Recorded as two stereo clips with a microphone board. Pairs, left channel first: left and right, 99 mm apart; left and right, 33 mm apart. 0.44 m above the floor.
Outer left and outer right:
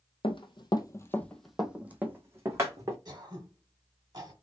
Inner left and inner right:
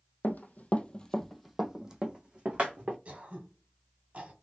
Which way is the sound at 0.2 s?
65° left (ahead or behind).